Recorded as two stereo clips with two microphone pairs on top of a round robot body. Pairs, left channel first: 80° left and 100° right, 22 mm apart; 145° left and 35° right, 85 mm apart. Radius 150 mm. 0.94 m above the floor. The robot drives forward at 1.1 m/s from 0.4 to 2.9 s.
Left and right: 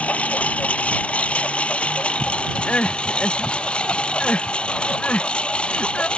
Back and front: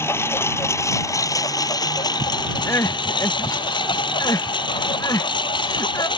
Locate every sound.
0.0 s a lawn mower: 85° left; by 6.2 s 115° left
2.7 s crying: 80° left; by 6.1 s 95° left